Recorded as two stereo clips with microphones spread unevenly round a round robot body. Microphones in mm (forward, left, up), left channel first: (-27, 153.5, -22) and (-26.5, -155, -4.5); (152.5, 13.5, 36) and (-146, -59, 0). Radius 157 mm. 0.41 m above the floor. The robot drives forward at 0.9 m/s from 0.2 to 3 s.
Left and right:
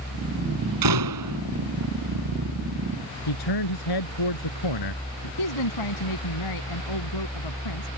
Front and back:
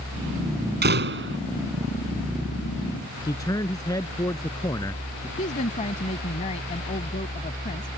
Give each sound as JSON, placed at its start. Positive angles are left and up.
{"t": 0.8, "sound": "a door slam", "azimuth_deg": -110}
{"t": 3.3, "sound": "a man speaking", "azimuth_deg": 95}
{"t": 5.4, "sound": "a woman speaking", "azimuth_deg": 85}